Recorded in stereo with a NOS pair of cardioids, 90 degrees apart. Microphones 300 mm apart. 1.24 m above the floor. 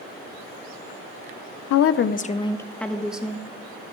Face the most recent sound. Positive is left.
turn(degrees=-5)